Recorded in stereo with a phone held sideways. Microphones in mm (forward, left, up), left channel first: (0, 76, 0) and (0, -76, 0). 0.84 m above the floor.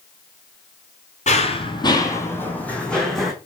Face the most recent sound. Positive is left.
turn(degrees=0)  # may be behind; listen again after turning